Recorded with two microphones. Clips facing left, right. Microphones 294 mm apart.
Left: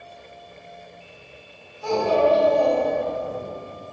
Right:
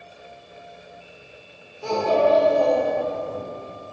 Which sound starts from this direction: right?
A child speaking, at 1.8 s.